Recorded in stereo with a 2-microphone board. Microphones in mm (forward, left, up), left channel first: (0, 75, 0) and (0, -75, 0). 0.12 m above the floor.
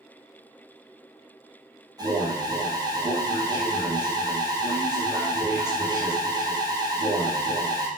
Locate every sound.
2.0 s an alarm: 25° right (ahead or behind), 4 m